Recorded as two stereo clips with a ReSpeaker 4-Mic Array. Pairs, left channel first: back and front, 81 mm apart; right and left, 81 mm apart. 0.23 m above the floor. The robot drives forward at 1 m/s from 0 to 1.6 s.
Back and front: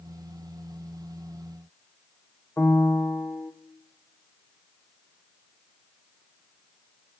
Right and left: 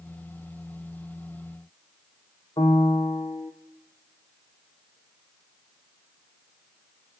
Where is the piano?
110° right, 2.5 m.